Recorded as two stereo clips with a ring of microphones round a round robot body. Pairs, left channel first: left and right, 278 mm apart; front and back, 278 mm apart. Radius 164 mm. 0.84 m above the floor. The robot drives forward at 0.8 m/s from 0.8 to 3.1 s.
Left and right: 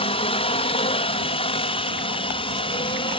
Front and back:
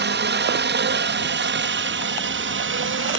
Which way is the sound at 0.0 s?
155° left.